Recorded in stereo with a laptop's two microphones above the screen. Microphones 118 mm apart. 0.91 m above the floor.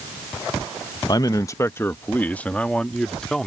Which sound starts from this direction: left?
A man speaking, at 1.1 s.